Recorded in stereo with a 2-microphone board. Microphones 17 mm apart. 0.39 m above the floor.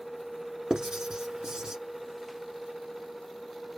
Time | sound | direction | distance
0.7 | writing | 55° right (ahead or behind) | 1.1 m